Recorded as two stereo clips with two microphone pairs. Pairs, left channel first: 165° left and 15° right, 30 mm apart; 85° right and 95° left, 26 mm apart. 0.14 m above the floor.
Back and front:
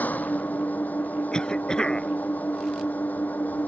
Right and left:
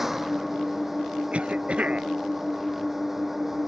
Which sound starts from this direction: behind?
An engine running, at 0.0 s.